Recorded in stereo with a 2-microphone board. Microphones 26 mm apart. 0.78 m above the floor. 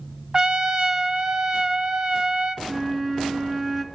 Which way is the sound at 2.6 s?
15° right (ahead or behind).